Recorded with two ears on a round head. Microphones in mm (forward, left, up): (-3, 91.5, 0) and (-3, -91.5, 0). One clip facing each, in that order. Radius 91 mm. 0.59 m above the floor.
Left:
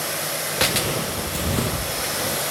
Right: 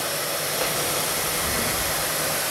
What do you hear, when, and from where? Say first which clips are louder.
0.6 s footsteps: left 5 dB; 50° left (ahead or behind), 0.8 m; by 2.4 s 45° left (ahead or behind), 1.8 m